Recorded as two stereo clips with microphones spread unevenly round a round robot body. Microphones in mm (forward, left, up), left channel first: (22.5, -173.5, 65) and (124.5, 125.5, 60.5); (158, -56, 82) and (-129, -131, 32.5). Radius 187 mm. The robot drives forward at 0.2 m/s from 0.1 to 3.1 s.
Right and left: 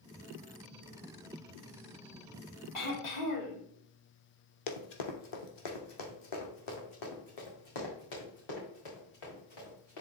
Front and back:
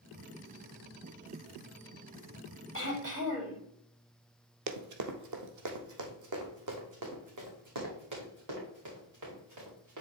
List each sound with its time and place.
2.7 s throat clearing: 115° right, 4 m; by 3.6 s 120° right, 4 m
4.7 s running footsteps: 130° right, 1.0 m; by 10.0 s 140° right, 5.5 m